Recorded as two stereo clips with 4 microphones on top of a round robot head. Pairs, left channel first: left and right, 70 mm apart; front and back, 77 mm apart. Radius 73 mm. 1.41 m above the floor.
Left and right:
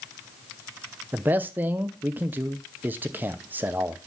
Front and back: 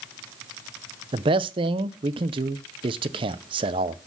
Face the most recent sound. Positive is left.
turn(degrees=-160)